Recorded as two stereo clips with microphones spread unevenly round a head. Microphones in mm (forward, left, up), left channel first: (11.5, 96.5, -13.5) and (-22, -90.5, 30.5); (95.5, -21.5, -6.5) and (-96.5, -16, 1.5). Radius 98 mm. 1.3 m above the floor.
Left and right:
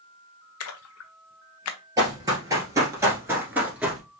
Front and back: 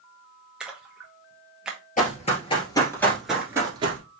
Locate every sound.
0.6 s a splash: 95° left, 0.5 m
2.0 s running footsteps: 45° right, 2.0 m; by 4.0 s 160° right, 1.5 m